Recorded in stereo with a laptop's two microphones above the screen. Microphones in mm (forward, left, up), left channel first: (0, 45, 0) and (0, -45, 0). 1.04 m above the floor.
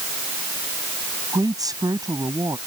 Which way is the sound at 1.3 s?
45° right (ahead or behind).